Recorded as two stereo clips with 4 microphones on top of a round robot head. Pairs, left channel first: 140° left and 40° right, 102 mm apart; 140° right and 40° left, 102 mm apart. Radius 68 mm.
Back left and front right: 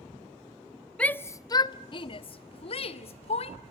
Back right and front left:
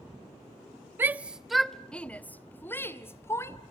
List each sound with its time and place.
1.0 s a shout: 75° left, 0.6 m; by 3.6 s 155° left, 1.7 m